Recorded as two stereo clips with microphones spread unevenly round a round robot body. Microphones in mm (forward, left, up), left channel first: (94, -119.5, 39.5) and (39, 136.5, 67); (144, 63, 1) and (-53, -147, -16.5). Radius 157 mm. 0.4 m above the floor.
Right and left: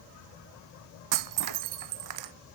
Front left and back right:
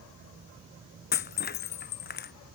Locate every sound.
1.1 s breaking glass: 110° left